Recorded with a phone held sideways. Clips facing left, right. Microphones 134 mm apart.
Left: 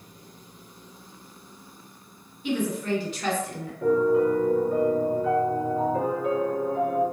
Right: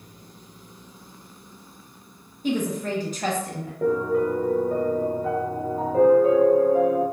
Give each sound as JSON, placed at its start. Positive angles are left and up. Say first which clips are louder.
{"t": 2.4, "sound": "a woman speaking", "louder": "right 1 dB", "side_deg": -40, "distance_m": 0.8}
{"t": 3.8, "sound": "a piano", "louder": "left 2 dB", "side_deg": -40, "distance_m": 0.9}